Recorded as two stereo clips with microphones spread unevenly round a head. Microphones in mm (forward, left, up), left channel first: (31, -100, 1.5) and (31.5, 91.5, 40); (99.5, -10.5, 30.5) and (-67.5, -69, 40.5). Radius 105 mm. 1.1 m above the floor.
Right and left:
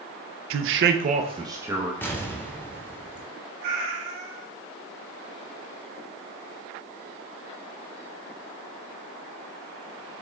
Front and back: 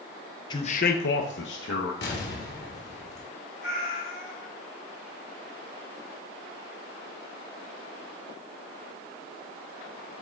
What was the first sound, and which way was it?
A man speaking, 85° left.